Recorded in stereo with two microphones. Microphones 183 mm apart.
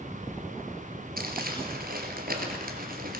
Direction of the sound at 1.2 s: 60° right (ahead or behind).